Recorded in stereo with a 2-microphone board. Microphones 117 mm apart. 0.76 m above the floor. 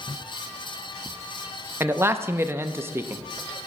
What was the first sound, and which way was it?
A man speaking, 20° right (ahead or behind).